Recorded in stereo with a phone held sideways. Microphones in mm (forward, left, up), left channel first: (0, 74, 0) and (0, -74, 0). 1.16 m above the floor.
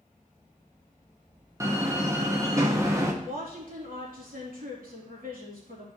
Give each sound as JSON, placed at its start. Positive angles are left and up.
{"t": 1.6, "sound": "a door slam", "side_deg": -20, "distance_m": 1.1}
{"t": 3.2, "sound": "a woman speaking", "side_deg": -75, "distance_m": 3.0}